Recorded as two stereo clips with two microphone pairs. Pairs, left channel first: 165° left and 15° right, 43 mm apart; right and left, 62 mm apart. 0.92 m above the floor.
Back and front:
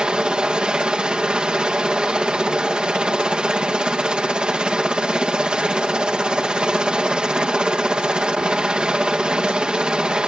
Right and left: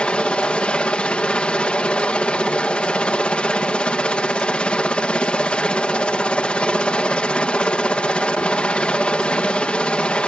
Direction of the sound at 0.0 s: 45° right.